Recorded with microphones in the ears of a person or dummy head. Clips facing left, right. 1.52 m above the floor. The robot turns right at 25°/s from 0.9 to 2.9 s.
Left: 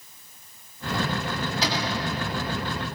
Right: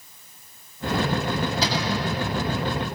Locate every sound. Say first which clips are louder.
1.6 s a cupboard door: right 2 dB; 80° right, 6.5 m; by 2.1 s 65° right (ahead or behind), 6.5 m